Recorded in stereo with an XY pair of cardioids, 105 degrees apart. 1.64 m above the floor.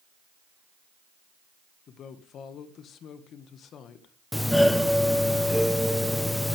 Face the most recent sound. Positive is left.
turn(degrees=5)